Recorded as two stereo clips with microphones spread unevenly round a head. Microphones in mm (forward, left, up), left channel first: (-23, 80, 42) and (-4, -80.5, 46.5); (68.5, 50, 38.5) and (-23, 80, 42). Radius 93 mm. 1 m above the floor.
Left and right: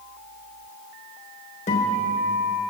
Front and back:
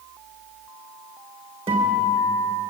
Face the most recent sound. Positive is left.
turn(degrees=140)